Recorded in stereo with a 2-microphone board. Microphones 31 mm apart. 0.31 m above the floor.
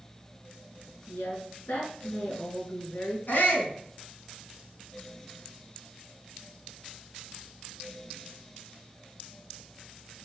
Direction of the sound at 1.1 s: 75° left (ahead or behind).